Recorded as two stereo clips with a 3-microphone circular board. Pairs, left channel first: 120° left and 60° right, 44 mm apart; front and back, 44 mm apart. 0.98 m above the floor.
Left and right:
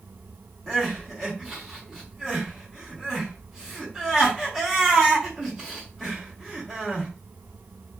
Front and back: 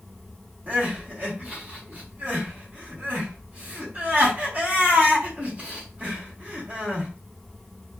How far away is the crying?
About 1.3 m.